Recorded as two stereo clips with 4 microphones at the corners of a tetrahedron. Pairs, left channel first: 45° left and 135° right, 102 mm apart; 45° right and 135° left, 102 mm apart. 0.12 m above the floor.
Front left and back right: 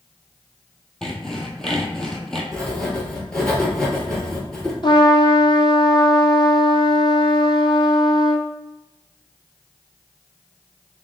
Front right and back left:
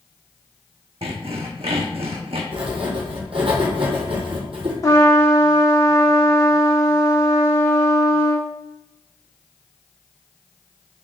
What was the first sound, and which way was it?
Sawing, 130° left.